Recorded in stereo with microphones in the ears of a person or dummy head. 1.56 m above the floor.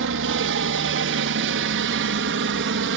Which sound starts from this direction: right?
A helicopter, at 0.0 s.